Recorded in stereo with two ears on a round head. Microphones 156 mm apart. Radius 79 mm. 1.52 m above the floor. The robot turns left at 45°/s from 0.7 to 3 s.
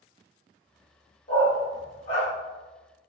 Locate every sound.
1.3 s a dog barking: 35° left (ahead or behind), 1.2 m; by 2.3 s 25° left (ahead or behind), 1.2 m